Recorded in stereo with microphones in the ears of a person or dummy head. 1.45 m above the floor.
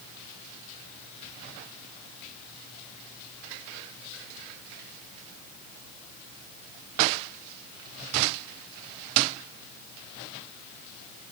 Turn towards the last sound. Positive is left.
No sound to turn to.